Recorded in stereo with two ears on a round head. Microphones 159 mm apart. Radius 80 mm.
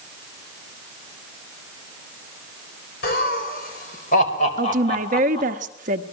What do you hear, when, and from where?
3.0 s laughter: 55° left (ahead or behind), 3.5 m; by 5.6 s 30° left (ahead or behind), 4 m
4.6 s a woman speaking: 45° right (ahead or behind), 1.1 m